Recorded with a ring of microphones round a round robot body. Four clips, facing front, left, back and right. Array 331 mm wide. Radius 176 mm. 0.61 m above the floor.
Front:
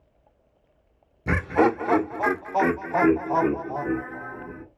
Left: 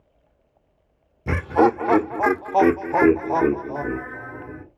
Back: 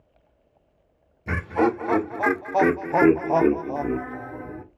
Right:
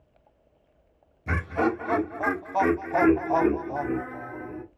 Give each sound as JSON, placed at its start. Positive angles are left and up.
{"t": 1.3, "sound": "laughter", "azimuth_deg": 50, "distance_m": 0.8}